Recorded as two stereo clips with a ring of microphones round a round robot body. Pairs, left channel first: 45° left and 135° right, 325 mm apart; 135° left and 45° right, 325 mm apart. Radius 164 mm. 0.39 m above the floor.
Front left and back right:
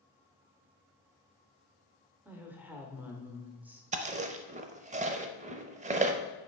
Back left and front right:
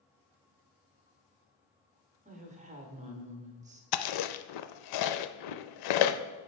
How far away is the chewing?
About 0.5 m.